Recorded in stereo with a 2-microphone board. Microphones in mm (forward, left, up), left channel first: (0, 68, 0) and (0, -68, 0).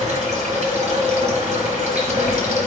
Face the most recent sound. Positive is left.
turn(degrees=-55)  # may be behind; listen again after turning